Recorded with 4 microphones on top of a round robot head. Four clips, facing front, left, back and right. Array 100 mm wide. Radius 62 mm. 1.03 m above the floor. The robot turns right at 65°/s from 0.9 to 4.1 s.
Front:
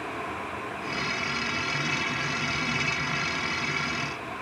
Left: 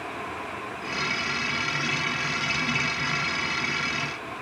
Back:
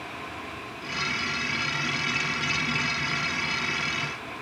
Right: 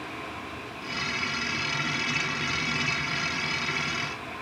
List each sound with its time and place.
Only background noise.